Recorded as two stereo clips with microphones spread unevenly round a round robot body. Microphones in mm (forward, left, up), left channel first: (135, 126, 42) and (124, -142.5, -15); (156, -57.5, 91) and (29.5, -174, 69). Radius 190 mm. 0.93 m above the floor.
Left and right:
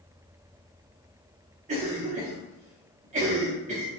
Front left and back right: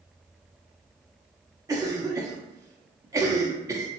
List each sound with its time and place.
1.7 s a cough: 85° right, 0.6 m